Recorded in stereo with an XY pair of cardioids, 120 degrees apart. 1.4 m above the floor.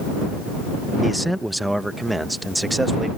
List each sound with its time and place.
1.0 s a man speaking: straight ahead; by 3.1 s 10° right